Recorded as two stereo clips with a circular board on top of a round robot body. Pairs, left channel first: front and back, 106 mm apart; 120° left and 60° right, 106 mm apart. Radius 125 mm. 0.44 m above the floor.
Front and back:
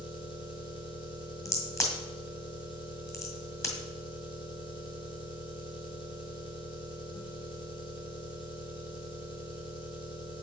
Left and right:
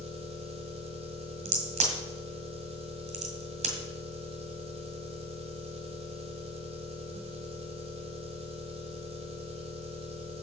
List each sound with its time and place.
0.0 s an engine running: 45° right, 2 m
1.4 s a crack: 65° right, 1.9 m